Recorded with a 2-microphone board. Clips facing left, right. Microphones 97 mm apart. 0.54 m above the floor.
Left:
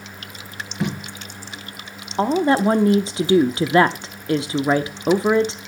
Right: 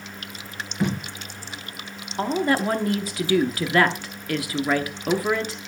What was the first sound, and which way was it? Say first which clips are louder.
Tape being pulled: right 1 dB; 5° left (ahead or behind).